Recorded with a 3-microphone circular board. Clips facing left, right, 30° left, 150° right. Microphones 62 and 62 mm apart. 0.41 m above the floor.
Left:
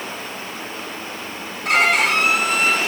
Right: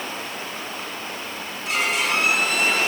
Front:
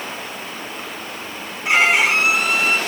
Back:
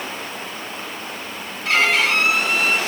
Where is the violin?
95° left, 2 m.